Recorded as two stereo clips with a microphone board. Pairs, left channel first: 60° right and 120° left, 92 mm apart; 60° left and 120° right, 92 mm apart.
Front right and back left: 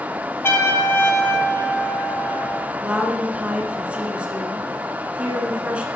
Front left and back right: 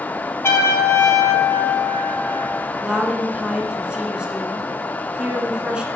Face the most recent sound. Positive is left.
turn(degrees=175)